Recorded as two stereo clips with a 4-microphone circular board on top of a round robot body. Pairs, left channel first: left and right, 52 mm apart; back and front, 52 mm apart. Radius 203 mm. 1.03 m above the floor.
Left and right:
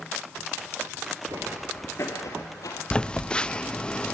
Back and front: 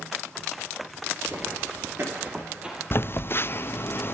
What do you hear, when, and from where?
1.3 s footsteps: 65° right, 1.2 m; by 2.8 s 75° left, 2 m
2.9 s a phone buzzing: 155° left, 0.7 m